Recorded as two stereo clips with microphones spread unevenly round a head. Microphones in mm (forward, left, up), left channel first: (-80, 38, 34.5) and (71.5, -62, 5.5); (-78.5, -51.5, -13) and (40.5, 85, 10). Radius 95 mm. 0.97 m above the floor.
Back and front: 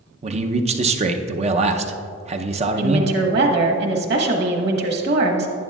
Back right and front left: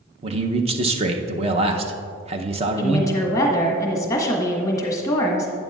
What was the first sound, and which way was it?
A man speaking, 10° right.